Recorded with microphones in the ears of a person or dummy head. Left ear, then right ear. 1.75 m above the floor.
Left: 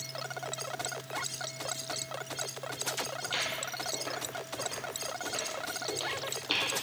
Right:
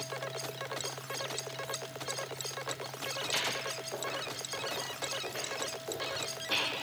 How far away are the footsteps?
About 3 m.